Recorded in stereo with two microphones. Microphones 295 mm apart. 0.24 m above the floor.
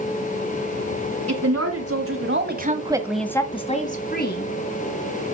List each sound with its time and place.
1.3 s a woman speaking: 55° right (ahead or behind), 2.5 m; by 4.5 s 35° left (ahead or behind), 2.5 m